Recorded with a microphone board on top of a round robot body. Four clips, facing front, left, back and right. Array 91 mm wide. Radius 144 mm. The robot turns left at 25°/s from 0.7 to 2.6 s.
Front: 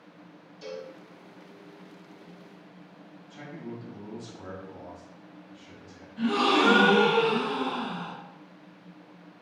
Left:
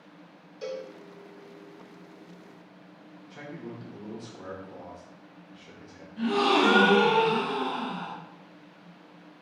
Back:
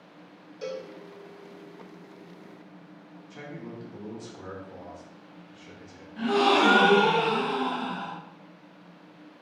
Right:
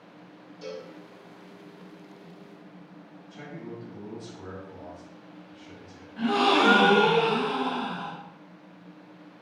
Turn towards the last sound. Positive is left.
turn(degrees=-140)